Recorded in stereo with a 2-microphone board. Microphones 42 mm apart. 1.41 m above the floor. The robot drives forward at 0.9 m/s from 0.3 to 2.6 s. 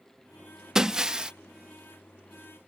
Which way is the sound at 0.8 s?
15° right (ahead or behind).